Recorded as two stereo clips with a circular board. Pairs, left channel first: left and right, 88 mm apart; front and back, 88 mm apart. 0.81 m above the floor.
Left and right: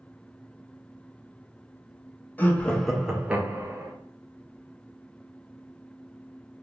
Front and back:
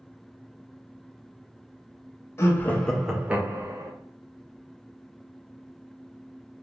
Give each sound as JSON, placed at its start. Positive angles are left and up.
{"t": 2.4, "sound": "laughter", "azimuth_deg": 35, "distance_m": 0.6}